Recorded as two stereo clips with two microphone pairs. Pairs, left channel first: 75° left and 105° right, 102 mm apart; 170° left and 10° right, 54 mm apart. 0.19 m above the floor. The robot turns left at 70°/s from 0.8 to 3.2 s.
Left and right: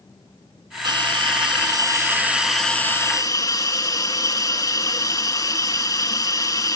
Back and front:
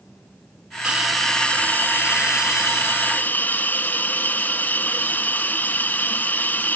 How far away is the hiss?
About 1.4 m.